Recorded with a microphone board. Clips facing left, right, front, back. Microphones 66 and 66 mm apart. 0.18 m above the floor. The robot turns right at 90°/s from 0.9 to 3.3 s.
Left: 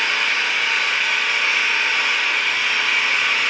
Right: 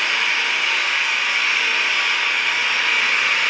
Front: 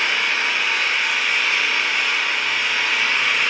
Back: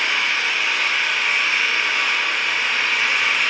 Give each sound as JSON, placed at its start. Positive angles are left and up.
{"t": 0.0, "sound": "an engine running", "azimuth_deg": 55, "distance_m": 1.0}